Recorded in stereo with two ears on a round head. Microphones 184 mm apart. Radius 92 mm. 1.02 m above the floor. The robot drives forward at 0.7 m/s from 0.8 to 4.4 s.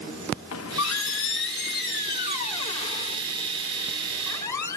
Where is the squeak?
80° left, 0.8 m; by 4.8 s 15° left (ahead or behind), 2.5 m.